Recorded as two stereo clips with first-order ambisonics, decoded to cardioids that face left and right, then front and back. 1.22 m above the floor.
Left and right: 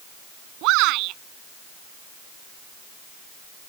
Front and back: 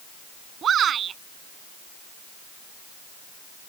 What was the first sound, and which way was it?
A shout, 120° right.